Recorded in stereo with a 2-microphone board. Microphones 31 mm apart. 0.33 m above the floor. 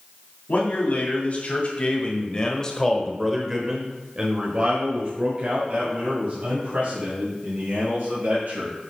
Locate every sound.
0.5 s a man speaking: 60° left (ahead or behind), 2 m; by 8.7 s 70° right (ahead or behind), 3.5 m